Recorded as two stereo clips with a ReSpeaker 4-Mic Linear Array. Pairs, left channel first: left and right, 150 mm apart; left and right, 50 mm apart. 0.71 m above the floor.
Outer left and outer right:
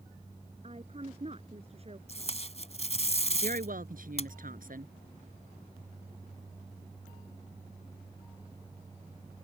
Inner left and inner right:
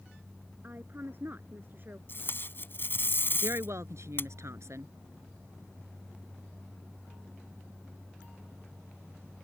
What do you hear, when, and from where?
0.6 s a woman speaking: 45° right (ahead or behind)
2.1 s tape being pulled: 45° left (ahead or behind)
3.4 s a woman speaking: 65° right (ahead or behind)